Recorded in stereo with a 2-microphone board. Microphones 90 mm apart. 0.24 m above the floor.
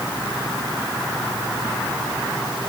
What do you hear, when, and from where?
Only background noise.